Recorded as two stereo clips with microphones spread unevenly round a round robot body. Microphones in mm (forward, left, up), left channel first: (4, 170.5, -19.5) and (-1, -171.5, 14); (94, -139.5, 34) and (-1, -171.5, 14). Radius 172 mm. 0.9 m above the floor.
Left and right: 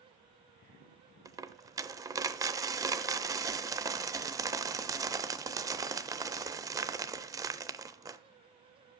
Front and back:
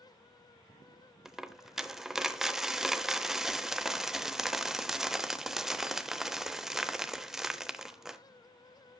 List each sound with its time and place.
1.2 s a dropped coin: 45° right, 0.6 m